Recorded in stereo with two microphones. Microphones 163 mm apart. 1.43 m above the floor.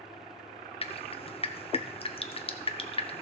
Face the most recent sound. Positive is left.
turn(degrees=35)  # may be behind; listen again after turning